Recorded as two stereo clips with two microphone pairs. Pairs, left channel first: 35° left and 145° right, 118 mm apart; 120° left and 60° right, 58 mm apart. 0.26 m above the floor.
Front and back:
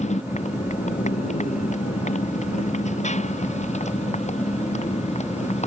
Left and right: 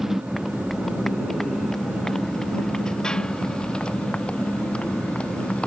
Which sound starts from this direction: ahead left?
A motorcycle, at 0.0 s.